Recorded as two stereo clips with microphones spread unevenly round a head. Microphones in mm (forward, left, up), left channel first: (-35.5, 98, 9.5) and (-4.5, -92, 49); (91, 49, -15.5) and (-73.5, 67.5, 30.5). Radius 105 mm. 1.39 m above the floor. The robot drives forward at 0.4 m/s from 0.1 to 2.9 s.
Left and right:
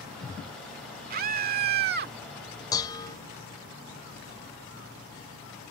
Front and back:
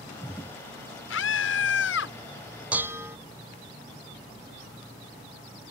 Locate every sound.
1.1 s a scream: 35° right
2.7 s dishes clattering: 175° left